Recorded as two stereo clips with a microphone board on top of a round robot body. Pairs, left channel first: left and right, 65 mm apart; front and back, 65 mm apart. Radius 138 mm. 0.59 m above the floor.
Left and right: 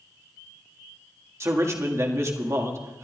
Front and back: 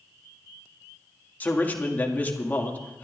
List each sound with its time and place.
1.4 s a man speaking: 60° right, 2 m